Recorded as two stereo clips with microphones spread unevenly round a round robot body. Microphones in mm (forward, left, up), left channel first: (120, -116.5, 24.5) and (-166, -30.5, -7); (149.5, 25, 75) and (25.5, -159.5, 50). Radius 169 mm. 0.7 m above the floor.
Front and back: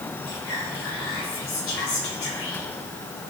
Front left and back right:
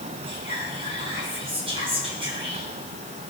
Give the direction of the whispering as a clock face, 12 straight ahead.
2 o'clock.